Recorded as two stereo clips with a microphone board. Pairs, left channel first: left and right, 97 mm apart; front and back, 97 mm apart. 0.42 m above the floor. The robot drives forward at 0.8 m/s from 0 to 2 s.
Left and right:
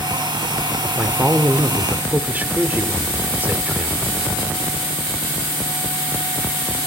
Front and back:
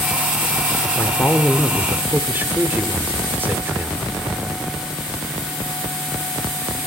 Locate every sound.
1.0 s a man speaking: 35° right, 1.0 m; by 4.1 s 140° right, 1.0 m